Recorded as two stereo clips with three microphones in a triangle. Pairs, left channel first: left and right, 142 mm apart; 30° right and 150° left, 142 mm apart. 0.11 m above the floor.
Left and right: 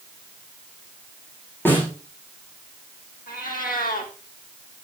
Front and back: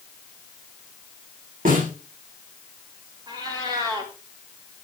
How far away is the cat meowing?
About 4 m.